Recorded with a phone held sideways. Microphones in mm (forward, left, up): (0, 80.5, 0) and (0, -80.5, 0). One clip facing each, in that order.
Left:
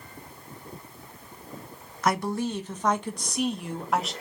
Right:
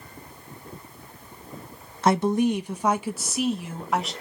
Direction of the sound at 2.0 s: 30° right (ahead or behind).